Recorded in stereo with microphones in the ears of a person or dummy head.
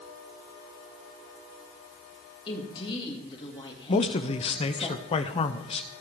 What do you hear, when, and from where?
2.5 s a woman speaking: 30° left (ahead or behind), 2.5 m
3.9 s a man speaking: 30° left (ahead or behind), 0.7 m